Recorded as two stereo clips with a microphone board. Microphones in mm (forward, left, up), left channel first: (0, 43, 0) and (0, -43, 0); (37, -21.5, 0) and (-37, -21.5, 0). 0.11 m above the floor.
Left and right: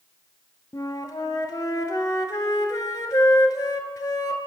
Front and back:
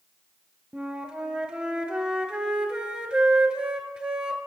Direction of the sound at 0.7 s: 110° left.